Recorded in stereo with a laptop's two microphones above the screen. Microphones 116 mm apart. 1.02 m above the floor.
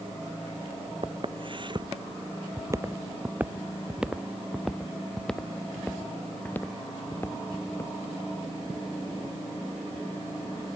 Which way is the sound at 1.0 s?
55° right (ahead or behind).